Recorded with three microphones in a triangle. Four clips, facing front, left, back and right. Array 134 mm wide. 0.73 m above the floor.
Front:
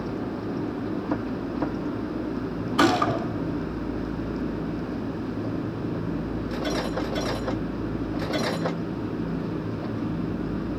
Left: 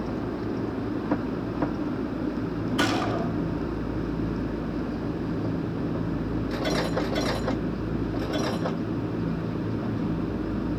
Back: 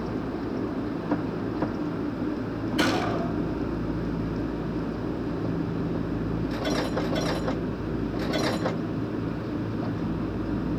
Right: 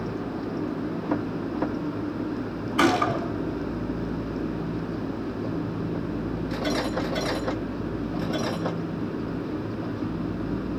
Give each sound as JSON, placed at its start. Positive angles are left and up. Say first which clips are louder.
{"t": 2.8, "sound": "a gunshot", "louder": "right 5 dB, front 5 dB", "azimuth_deg": -45, "distance_m": 2.0}